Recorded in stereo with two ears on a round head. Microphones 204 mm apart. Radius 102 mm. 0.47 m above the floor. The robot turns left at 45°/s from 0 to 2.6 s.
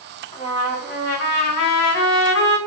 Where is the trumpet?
160° left, 1.0 m; by 2.6 s 55° left, 1.0 m.